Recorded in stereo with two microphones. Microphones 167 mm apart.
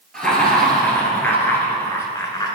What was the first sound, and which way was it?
Laughter, 5° left (ahead or behind).